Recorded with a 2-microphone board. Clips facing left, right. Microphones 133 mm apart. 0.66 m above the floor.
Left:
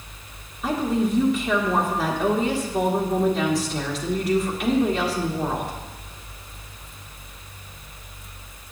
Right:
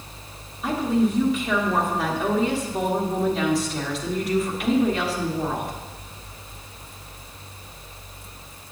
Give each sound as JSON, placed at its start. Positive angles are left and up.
{"t": 0.6, "sound": "a woman speaking", "side_deg": 0, "distance_m": 1.5}